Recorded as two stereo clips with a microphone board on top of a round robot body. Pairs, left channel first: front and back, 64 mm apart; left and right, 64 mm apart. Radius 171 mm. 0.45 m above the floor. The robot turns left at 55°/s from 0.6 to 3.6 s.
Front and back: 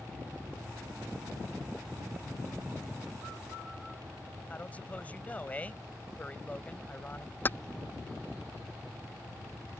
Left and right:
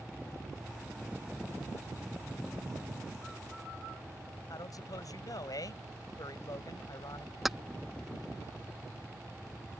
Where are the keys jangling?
5° right.